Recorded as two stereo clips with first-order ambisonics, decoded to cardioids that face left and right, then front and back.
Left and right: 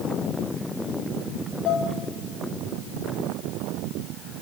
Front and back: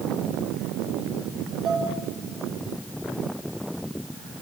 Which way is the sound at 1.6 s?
120° left.